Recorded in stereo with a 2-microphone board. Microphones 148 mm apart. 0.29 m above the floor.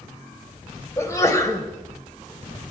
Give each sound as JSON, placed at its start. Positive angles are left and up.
{"t": 1.0, "sound": "a sneeze", "side_deg": 20, "distance_m": 1.4}